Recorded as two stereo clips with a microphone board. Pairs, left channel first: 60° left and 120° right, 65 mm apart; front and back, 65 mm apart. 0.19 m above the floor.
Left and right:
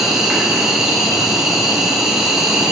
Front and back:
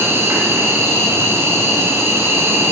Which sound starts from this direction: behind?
An insect, at 0.0 s.